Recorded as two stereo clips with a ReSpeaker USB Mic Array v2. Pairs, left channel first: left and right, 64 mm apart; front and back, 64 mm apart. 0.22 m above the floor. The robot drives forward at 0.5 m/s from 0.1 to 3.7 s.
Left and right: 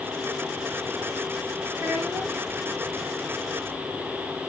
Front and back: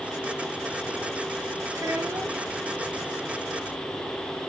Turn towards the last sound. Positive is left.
turn(degrees=-155)